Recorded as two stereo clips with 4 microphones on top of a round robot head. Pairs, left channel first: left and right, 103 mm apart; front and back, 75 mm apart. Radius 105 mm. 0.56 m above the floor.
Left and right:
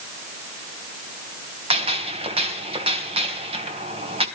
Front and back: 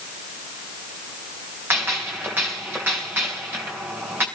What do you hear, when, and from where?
1.7 s a gunshot: 115° right, 3 m